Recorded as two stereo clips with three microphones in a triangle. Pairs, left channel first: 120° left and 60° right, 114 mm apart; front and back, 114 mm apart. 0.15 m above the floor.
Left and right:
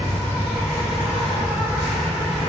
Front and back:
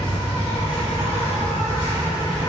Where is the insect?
5° left, 1.5 m.